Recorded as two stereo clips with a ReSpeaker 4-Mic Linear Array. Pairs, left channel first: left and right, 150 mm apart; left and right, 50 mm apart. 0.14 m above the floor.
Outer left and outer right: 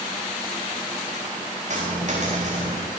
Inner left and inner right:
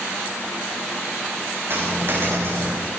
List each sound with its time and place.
1.7 s a dropped coin: 55° right (ahead or behind), 9 m